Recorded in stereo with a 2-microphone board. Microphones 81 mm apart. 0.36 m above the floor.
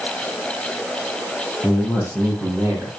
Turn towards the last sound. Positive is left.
turn(degrees=-25)  # may be behind; listen again after turning